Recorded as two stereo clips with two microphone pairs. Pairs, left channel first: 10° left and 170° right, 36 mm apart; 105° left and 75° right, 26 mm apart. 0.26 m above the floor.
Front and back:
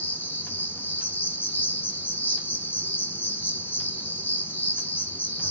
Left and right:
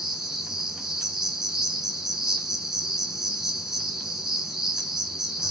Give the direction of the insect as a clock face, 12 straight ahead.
12 o'clock.